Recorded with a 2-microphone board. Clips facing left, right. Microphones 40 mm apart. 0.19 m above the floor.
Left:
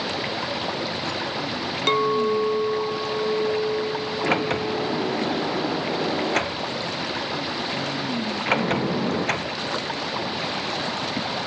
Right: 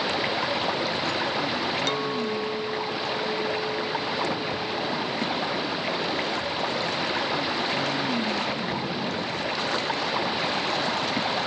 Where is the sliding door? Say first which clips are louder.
Left 5 dB; 80° left.